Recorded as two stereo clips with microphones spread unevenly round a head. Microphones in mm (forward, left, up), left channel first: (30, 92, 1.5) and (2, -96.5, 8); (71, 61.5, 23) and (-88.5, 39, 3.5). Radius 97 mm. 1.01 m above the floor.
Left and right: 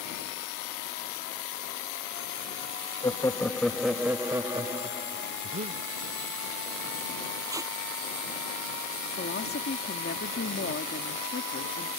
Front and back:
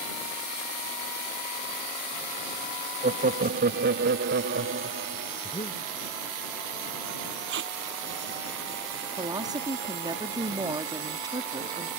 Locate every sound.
3.0 s laughter: 150° left; by 5.3 s 165° right
5.4 s breathing: 50° right
7.5 s tape being pulled: 170° right
9.2 s a woman speaking: 125° left